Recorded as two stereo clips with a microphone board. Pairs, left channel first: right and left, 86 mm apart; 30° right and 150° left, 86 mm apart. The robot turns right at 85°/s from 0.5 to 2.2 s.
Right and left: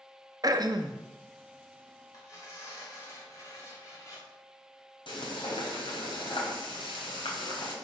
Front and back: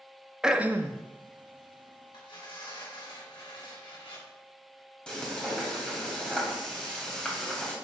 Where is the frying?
110° right, 3 m.